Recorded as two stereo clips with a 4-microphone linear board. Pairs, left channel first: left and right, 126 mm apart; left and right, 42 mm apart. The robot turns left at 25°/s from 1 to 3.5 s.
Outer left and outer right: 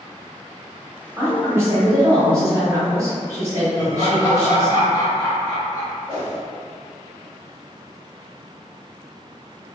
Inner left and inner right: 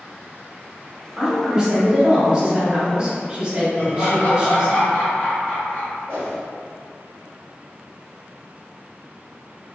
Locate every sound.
1.2 s a woman speaking: 15° right (ahead or behind), 0.9 m; by 4.8 s 25° right (ahead or behind), 0.9 m
3.8 s laughter: 45° left (ahead or behind), 1.5 m
6.1 s a whoosh: 40° left (ahead or behind), 1.6 m